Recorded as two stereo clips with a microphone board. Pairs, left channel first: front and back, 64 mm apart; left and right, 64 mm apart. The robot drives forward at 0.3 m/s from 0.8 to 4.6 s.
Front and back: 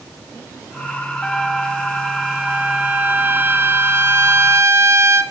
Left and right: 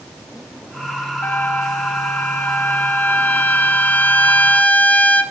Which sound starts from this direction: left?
A trumpet, at 1.2 s.